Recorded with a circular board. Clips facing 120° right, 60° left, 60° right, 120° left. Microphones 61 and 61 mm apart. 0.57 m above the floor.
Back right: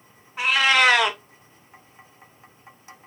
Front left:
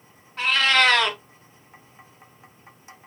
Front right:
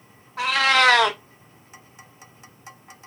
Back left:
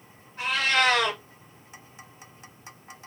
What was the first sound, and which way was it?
A cat meowing, 40° right.